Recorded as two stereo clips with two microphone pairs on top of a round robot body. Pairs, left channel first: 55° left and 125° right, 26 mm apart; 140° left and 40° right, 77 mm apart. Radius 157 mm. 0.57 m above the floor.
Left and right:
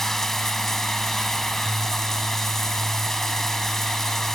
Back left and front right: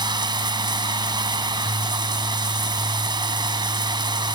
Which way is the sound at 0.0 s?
20° right.